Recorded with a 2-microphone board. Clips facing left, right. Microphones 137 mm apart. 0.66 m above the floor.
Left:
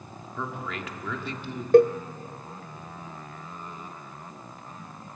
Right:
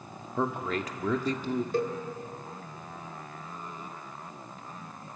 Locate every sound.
0.4 s a man speaking: 40° right (ahead or behind), 1.5 m
1.7 s a cowbell: 65° left (ahead or behind), 0.6 m